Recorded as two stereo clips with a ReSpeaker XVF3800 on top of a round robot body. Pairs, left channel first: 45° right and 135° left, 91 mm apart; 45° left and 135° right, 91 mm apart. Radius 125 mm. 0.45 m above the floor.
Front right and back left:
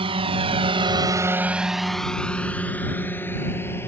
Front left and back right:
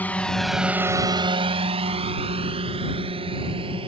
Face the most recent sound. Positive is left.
turn(degrees=-110)